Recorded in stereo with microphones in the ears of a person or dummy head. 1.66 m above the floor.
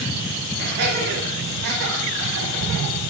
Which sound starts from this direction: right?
Laughter, at 0.6 s.